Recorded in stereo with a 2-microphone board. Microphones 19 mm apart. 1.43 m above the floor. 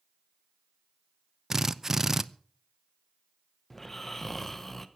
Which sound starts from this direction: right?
A drill, at 1.5 s.